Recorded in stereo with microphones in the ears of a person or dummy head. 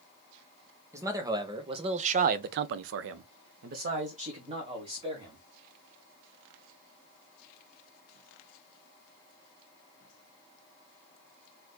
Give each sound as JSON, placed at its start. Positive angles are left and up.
{"t": 0.9, "sound": "a man speaking", "side_deg": -10, "distance_m": 1.1}